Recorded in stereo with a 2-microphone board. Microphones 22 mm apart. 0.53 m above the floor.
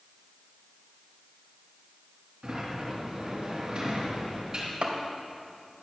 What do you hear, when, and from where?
2.4 s a sliding door: 40° right (ahead or behind), 3.5 m
4.8 s chopping: 70° right (ahead or behind), 1.9 m